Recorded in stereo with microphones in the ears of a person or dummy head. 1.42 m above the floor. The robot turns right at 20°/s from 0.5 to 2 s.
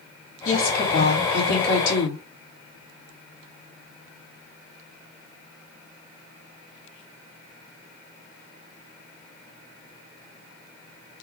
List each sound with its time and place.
0.5 s a woman speaking: 45° left, 2 m; by 2.2 s 75° left, 2 m